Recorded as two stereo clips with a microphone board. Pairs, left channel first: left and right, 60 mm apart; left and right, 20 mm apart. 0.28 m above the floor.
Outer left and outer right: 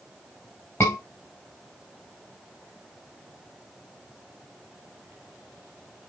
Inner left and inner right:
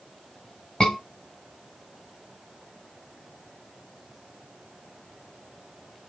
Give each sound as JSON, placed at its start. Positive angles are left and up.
{"t": 0.8, "sound": "a scream", "side_deg": 45, "distance_m": 2.5}